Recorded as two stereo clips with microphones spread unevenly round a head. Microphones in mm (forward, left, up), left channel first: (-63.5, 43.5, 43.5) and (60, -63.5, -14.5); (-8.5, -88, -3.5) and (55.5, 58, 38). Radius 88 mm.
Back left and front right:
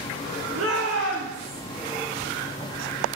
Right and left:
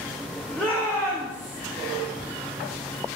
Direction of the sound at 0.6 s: 25° right.